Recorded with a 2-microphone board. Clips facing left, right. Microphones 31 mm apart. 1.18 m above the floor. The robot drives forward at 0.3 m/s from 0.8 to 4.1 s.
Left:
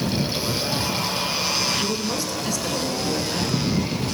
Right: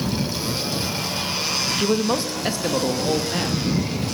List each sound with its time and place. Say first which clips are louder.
1.8 s a man speaking: right 4 dB; 40° right (ahead or behind), 1.2 m; by 3.8 s 30° right (ahead or behind), 1.7 m